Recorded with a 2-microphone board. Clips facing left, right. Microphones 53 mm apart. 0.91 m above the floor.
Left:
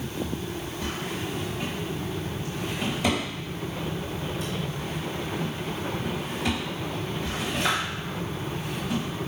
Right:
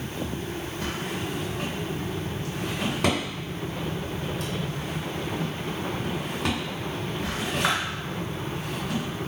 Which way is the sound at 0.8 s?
70° right (ahead or behind).